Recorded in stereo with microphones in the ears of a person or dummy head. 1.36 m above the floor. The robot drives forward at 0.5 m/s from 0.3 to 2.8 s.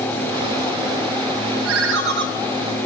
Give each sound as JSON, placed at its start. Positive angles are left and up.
{"t": 1.6, "sound": "a ringtone", "side_deg": -65, "distance_m": 0.5}